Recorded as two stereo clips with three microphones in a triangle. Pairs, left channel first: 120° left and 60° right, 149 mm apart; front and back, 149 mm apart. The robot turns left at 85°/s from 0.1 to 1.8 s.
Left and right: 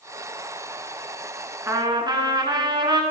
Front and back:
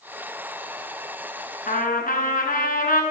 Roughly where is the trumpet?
Ahead.